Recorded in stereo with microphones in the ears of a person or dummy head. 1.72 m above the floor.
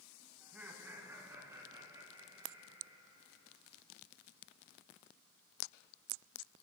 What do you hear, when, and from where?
0.4 s laughter: 10° right (ahead or behind), 2 m; by 3.5 s 30° right (ahead or behind), 5.5 m